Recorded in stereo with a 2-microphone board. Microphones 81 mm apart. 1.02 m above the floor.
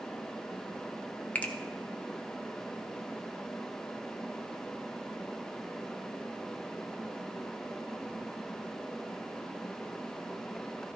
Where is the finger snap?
20° left (ahead or behind), 0.8 m.